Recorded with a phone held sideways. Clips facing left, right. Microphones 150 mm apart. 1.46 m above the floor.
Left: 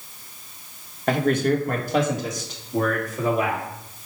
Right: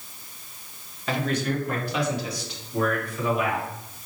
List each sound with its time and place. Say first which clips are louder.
1.1 s a man speaking: left 6 dB; 50° left (ahead or behind), 1.3 m; by 3.6 s 40° left (ahead or behind), 2.5 m